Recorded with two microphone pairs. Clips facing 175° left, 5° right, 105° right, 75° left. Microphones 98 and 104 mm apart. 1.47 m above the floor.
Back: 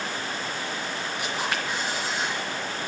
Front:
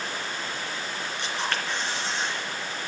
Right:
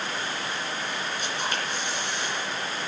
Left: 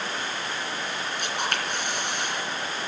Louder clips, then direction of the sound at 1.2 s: Even, left 3 dB; 95° left.